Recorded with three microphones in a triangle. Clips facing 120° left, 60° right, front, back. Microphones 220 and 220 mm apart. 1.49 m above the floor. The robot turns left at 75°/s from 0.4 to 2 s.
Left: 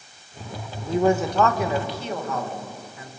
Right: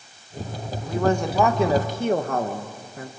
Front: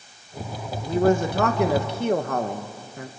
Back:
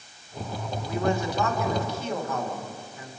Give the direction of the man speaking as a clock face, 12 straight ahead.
10 o'clock.